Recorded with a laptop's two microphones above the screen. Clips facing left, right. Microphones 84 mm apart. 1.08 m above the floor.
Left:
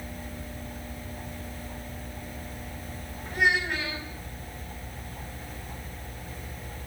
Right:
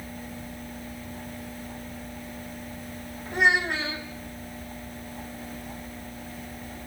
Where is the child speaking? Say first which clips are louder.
Right 3 dB; 25° right (ahead or behind), 5 m.